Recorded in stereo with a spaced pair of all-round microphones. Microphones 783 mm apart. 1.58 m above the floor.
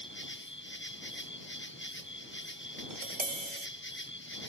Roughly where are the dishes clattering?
No dishes clattering in this recording.